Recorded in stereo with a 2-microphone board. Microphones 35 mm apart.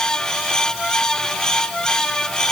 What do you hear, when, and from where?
Only background noise.